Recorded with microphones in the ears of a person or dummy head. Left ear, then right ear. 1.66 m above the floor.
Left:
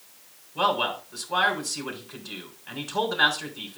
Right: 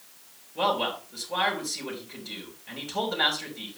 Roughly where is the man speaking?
Left.